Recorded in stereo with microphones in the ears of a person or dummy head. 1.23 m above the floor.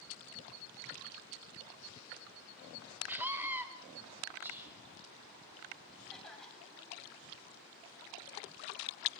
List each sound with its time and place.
3.1 s a scream: 10° right (ahead or behind), 4 m
4.4 s whispering: 10° right (ahead or behind), 6.5 m
6.1 s a cough: centre (ahead or behind), 8 m